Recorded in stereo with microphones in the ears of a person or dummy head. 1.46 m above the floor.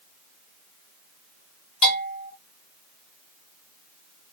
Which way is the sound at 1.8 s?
35° left (ahead or behind).